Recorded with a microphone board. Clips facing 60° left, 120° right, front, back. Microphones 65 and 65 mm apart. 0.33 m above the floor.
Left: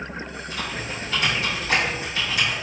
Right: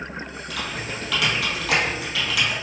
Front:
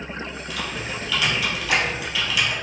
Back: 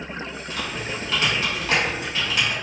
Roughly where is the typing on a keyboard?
Behind right.